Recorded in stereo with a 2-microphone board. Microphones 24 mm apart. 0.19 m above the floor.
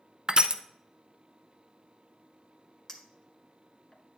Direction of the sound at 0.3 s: 35° right (ahead or behind).